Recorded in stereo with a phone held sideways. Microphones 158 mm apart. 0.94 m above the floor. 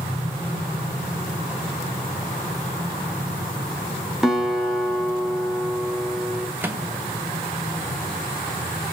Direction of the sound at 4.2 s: Centre (ahead or behind).